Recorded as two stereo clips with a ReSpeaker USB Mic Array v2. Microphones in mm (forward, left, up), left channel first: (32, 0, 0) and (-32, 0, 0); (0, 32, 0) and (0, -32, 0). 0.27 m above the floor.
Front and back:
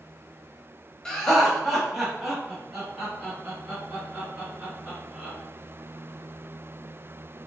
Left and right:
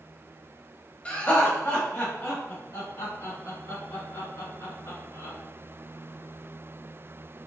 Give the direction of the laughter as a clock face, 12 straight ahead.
10 o'clock.